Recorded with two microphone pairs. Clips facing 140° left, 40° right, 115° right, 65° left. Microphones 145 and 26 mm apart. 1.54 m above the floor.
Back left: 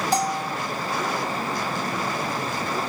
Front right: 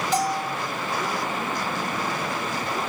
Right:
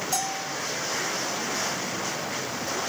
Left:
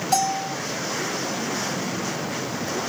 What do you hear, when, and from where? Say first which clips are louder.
0.1 s a bell: front right 1 dB, left 10 dB; 85° left, 2 m